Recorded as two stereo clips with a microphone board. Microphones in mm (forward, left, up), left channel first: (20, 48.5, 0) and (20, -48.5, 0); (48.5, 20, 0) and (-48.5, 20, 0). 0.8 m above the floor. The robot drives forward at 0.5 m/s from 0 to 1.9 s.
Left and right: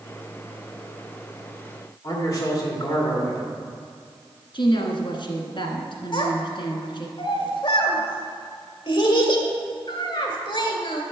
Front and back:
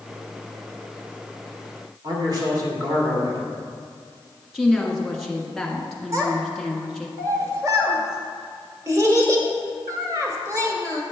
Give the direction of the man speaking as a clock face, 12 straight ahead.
7 o'clock.